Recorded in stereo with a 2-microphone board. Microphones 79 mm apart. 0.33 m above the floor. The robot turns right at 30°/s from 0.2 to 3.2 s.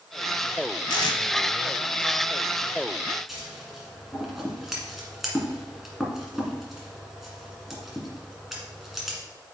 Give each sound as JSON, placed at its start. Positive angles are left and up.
{"t": 0.9, "sound": "tape being pulled", "side_deg": 70, "distance_m": 0.8}
{"t": 3.3, "sound": "scissors", "side_deg": -5, "distance_m": 1.7}